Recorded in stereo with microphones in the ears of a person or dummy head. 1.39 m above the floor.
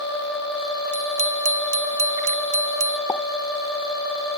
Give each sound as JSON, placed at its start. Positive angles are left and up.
{"t": 0.9, "sound": "a bicycle bell", "side_deg": -40}
{"t": 3.1, "sound": "a pop", "side_deg": 15}